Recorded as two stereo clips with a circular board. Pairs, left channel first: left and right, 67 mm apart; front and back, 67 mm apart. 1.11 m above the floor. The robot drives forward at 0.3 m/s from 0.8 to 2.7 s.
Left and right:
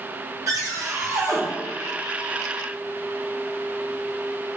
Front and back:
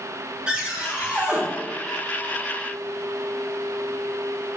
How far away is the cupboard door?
About 1.0 m.